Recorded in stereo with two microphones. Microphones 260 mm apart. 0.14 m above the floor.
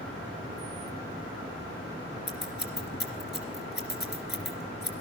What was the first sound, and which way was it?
Scissors, 45° left (ahead or behind).